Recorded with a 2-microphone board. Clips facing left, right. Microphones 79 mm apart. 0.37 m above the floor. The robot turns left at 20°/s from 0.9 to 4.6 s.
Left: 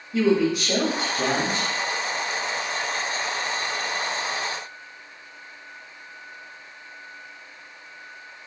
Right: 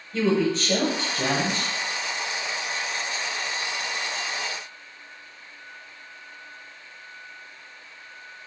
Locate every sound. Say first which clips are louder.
0.1 s a woman speaking: left 2 dB; 10° left (ahead or behind), 1.4 m; by 1.7 s 5° right (ahead or behind), 1.4 m